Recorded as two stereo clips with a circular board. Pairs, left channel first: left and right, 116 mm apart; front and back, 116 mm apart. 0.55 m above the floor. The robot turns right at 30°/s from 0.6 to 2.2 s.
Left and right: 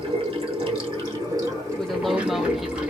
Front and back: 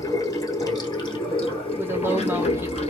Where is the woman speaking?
170° left, 0.6 m; by 2.8 s 175° right, 0.6 m.